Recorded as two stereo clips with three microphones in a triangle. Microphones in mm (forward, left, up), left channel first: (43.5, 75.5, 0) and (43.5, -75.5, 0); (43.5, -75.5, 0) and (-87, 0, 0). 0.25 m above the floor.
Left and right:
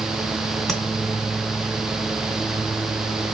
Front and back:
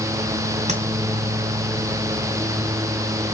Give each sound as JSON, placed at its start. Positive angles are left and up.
{"t": 0.7, "sound": "tapping", "azimuth_deg": 175, "distance_m": 2.0}